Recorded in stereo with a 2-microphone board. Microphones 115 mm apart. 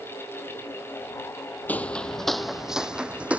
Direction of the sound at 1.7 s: 15° left (ahead or behind).